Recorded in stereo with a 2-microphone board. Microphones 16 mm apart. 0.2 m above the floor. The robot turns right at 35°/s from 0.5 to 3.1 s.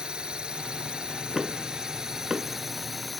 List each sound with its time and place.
0.0 s a drone: 100° right; by 3.2 s 10° right
1.4 s knocking: 20° right (ahead or behind); by 2.6 s 55° right (ahead or behind)